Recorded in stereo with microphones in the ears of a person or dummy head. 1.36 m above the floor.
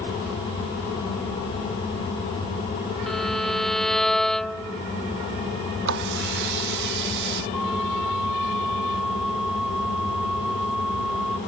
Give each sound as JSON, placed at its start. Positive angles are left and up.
{"t": 3.1, "sound": "a violin", "side_deg": 5}
{"t": 5.8, "sound": "a running tap", "side_deg": -60}
{"t": 7.5, "sound": "a flute", "side_deg": 0}